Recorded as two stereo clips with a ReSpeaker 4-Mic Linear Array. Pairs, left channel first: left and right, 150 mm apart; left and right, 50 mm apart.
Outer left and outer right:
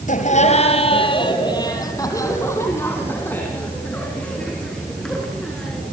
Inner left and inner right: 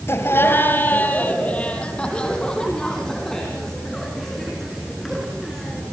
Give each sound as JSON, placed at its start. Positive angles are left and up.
{"t": 0.1, "sound": "laughter", "side_deg": 55, "distance_m": 2.5}